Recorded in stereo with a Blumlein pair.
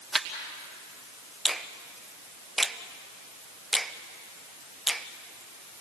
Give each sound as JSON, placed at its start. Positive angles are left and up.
{"t": 0.1, "sound": "a camera shutter", "azimuth_deg": -5, "distance_m": 2.5}
{"t": 1.4, "sound": "a finger snap", "azimuth_deg": -5, "distance_m": 0.8}